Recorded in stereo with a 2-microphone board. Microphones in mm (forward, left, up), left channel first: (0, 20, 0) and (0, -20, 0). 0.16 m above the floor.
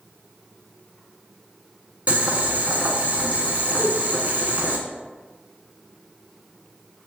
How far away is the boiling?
About 0.6 m.